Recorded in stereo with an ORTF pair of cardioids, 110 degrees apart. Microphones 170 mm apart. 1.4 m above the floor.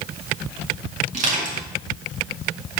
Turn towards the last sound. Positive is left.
turn(degrees=-55)